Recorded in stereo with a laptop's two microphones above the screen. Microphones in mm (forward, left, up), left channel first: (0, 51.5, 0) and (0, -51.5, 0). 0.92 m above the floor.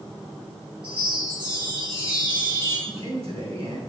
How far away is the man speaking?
About 4 m.